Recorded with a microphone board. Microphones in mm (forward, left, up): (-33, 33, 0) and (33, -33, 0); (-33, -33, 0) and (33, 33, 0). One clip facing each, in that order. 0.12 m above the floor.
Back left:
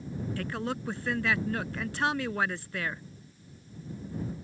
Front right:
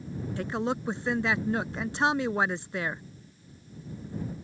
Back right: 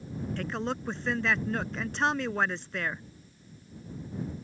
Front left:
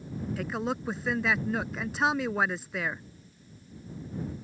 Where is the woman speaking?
30° right.